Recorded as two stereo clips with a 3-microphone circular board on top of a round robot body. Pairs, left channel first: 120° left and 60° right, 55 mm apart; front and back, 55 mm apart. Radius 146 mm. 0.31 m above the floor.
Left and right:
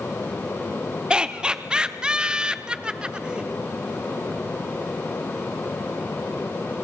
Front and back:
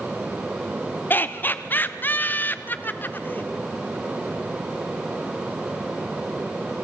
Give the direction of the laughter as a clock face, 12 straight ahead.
12 o'clock.